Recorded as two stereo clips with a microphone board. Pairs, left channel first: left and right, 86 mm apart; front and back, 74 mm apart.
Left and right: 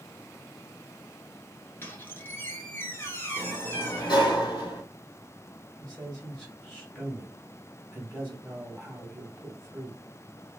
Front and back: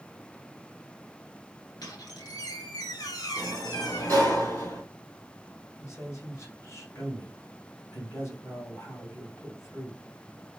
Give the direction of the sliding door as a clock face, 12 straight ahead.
10 o'clock.